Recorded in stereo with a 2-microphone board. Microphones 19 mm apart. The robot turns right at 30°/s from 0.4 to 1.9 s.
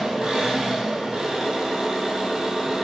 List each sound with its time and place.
0.0 s an engine running: 100° right, 1.1 m; by 2.8 s 55° right, 1.1 m